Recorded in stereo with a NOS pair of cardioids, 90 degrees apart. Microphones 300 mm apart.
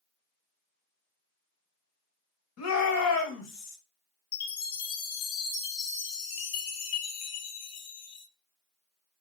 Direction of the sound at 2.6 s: 60° left.